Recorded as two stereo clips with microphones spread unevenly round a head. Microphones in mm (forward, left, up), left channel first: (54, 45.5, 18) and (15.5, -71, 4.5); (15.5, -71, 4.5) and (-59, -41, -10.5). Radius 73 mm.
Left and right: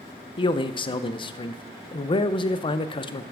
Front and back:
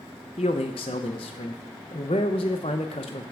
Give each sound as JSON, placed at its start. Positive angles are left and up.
{"t": 0.4, "sound": "a man speaking", "azimuth_deg": 20, "distance_m": 0.6}